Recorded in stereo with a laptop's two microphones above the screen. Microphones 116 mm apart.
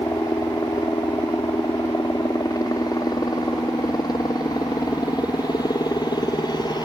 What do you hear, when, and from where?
0.0 s a helicopter: 30° left (ahead or behind); by 6.8 s 40° left (ahead or behind)